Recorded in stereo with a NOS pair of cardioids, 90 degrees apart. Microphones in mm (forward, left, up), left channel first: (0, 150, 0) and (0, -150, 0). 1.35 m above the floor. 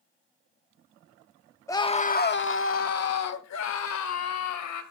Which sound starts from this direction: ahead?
A scream, at 1.7 s.